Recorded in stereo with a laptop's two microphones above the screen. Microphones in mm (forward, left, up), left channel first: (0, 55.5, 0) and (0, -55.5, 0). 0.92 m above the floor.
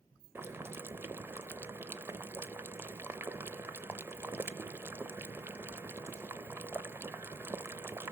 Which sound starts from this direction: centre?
Boiling, at 0.3 s.